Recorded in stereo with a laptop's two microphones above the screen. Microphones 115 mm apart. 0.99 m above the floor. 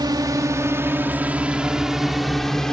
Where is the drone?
35° right (ahead or behind); by 2.7 s 5° left (ahead or behind).